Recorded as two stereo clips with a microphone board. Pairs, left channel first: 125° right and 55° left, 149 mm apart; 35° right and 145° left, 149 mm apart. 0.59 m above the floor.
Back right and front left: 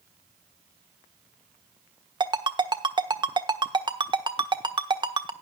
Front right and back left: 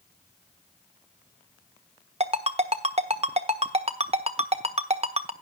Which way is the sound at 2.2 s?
110° left.